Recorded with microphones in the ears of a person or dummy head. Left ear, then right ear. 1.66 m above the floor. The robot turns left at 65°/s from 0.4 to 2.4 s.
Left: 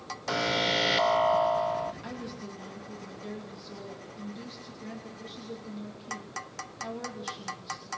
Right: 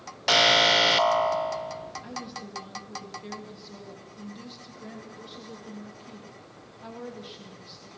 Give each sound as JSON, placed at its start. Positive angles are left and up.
{"t": 0.3, "sound": "an alarm", "side_deg": -25, "distance_m": 0.5}
{"t": 2.0, "sound": "a woman speaking", "side_deg": 15, "distance_m": 3.0}